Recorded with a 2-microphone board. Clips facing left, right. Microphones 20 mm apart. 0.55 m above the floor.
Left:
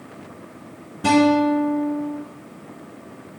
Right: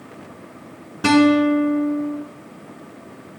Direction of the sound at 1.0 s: 60° right (ahead or behind).